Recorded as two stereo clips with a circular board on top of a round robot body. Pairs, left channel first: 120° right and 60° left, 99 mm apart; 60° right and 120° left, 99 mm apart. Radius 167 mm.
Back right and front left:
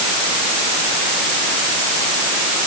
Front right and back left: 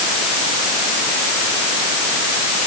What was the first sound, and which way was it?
Only background noise.